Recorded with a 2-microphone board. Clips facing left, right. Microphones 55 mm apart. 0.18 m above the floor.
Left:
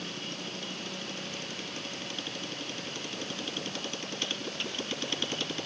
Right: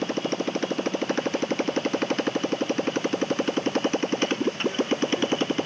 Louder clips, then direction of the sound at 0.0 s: Right 13 dB; 70° right (ahead or behind).